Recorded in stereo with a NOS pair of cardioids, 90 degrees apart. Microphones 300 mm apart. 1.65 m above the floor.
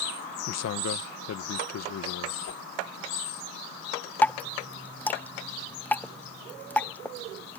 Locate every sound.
0.5 s a man speaking: 60° left
2.5 s a whoosh: 65° left
4.2 s dripping: 5° left